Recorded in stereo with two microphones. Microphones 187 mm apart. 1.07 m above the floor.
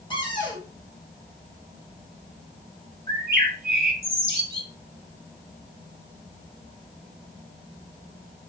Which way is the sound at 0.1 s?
25° left (ahead or behind).